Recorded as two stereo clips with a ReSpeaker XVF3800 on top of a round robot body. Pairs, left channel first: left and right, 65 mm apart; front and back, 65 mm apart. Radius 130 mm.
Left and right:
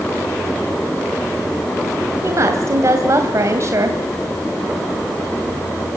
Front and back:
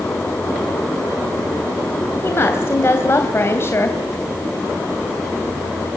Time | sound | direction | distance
2.2 | a woman speaking | 50° right | 2.5 m